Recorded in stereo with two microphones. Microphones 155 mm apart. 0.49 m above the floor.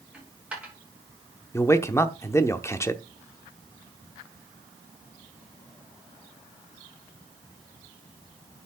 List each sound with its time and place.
0.1 s a dropped coin: 5° right (ahead or behind), 5.5 m
1.5 s a man speaking: 20° left (ahead or behind), 0.8 m